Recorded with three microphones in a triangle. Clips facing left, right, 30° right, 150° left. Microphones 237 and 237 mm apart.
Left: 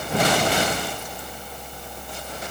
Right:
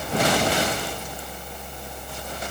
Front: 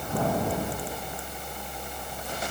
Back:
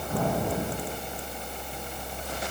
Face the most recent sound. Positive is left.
No sound to turn to.